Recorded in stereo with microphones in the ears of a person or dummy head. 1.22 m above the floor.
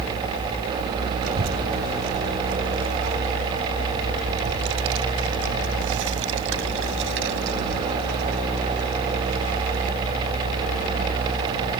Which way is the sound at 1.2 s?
70° right (ahead or behind).